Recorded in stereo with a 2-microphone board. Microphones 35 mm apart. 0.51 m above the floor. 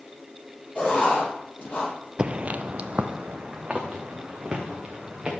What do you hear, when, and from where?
0.8 s writing: 45° left (ahead or behind), 7.5 m
2.2 s footsteps: 25° right (ahead or behind), 0.5 m